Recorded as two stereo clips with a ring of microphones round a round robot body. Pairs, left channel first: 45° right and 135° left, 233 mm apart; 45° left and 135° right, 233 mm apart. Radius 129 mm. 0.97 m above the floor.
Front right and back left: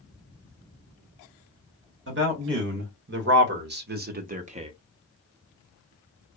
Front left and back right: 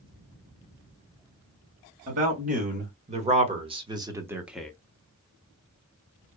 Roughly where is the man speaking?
Behind.